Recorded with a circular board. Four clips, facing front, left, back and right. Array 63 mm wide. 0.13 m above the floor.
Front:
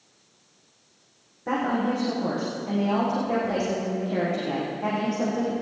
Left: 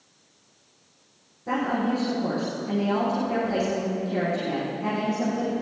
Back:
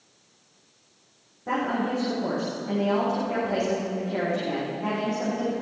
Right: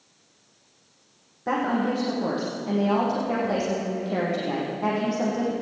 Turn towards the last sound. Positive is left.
turn(degrees=-70)